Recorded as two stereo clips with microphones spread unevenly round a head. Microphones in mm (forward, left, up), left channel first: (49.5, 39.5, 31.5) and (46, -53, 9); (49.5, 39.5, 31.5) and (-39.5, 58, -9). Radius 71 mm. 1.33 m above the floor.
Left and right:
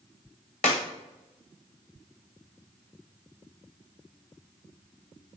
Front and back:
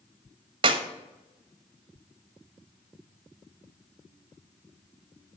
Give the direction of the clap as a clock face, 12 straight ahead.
8 o'clock.